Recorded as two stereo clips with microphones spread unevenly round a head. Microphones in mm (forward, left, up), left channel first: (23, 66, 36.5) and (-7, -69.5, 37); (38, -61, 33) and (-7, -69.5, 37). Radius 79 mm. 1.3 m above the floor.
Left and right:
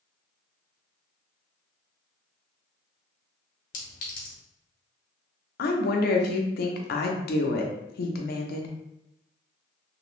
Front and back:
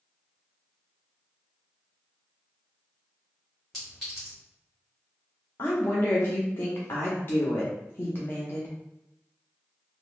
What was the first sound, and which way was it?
A clink, 100° left.